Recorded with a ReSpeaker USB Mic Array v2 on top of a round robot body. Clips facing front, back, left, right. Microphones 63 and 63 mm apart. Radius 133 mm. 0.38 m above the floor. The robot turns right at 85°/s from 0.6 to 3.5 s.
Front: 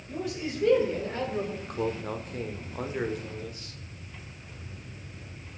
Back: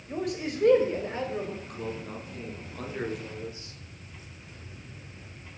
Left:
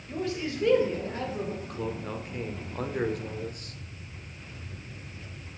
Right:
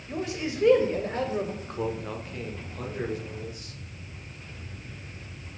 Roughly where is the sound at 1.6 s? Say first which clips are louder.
Front 5 dB, right 3 dB; ahead right.